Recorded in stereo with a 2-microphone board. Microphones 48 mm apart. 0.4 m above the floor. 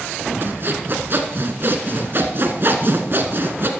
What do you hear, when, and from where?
0.4 s sawing: 50° right (ahead or behind), 1.2 m